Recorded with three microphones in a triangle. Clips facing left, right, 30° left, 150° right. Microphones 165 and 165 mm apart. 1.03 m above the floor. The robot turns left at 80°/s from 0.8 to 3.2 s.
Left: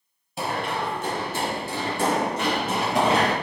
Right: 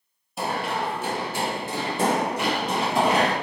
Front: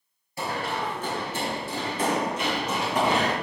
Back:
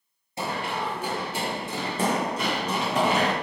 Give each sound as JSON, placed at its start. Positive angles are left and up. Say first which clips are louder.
{"t": 0.4, "sound": "running footsteps", "louder": "even, even", "azimuth_deg": 180, "distance_m": 1.1}